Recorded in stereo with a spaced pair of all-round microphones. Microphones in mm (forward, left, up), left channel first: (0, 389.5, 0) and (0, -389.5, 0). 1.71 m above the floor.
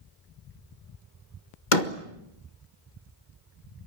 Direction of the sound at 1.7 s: 75° left (ahead or behind).